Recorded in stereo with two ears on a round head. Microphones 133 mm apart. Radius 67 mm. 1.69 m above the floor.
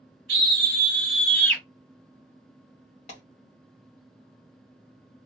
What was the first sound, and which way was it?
A scream, 40° right (ahead or behind).